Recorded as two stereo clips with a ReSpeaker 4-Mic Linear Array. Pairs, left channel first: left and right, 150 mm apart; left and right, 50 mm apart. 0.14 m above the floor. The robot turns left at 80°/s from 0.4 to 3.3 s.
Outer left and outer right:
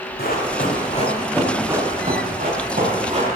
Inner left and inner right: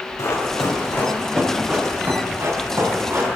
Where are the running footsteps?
90° left, 4 m; by 3.4 s 40° right (ahead or behind), 6 m.